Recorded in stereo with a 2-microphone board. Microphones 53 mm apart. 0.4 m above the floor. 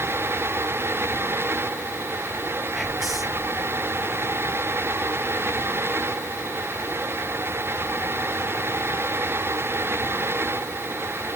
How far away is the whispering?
About 1.2 m.